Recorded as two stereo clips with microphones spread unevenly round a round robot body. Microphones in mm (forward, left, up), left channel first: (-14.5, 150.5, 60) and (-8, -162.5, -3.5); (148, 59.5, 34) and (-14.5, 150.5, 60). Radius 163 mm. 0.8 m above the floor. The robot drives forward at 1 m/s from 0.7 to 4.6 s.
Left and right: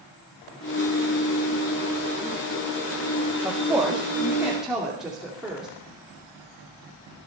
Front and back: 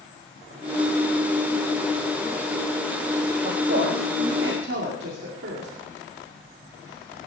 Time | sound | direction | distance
3.4 | a woman speaking | 165° right | 1.5 m